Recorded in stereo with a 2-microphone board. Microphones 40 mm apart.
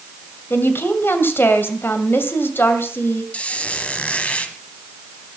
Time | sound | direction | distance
0.5 | a woman speaking | 65° left (ahead or behind) | 2 m
3.3 | a squeak | 35° left (ahead or behind) | 1.4 m